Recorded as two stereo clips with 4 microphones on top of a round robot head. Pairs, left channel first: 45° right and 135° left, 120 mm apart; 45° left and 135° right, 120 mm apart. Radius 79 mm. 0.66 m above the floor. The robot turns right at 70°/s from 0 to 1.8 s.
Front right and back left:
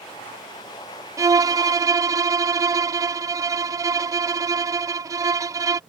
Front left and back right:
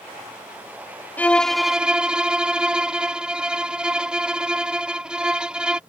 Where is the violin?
110° left; by 5.8 s 150° left.